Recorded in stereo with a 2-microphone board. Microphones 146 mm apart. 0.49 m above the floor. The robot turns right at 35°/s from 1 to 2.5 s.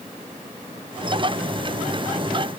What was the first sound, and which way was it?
Only background noise.